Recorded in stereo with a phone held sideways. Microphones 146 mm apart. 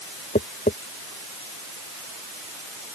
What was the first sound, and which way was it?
Tapping, 70° left (ahead or behind).